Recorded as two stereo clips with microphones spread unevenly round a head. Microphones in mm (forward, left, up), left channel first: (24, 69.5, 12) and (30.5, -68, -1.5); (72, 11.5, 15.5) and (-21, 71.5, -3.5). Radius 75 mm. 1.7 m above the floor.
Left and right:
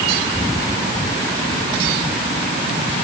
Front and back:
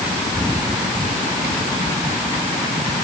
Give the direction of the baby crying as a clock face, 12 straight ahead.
No baby crying in this recording.